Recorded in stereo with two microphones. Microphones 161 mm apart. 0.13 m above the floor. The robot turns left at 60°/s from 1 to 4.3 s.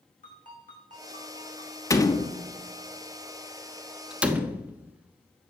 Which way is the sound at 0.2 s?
125° left.